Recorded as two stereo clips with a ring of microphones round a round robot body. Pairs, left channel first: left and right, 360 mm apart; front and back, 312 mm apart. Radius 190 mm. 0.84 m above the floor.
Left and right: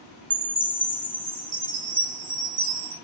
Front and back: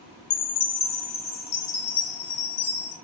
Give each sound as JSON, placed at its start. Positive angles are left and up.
{"t": 0.3, "sound": "a chime", "azimuth_deg": -20, "distance_m": 1.9}